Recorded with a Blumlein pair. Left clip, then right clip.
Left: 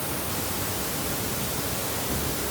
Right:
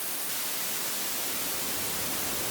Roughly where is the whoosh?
I don't hear a whoosh.